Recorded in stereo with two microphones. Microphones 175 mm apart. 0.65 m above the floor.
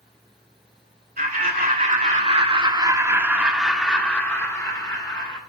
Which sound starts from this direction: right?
Laughter, at 1.2 s.